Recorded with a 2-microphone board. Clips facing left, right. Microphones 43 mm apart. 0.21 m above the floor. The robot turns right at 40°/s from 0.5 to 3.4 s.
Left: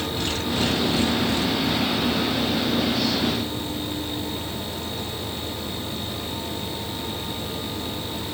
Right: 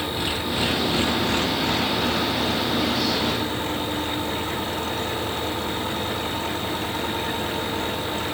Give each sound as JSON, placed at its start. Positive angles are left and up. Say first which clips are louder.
{"t": 0.0, "sound": "an engine running", "louder": "right 1 dB", "azimuth_deg": -165}